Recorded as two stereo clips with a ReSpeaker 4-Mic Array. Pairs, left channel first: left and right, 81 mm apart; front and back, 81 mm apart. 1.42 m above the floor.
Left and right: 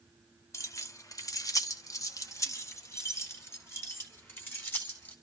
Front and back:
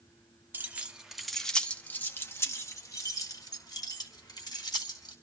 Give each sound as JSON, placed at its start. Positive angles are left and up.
{"t": 0.5, "sound": "keys jangling", "azimuth_deg": 125, "distance_m": 0.9}